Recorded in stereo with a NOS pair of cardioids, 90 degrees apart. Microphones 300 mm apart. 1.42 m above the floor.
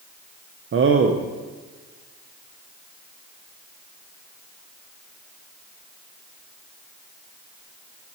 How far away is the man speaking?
About 1.1 m.